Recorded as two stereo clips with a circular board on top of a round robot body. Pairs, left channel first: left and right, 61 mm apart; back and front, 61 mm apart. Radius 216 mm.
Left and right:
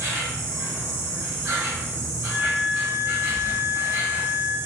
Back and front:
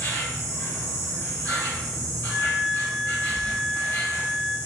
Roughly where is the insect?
Behind right.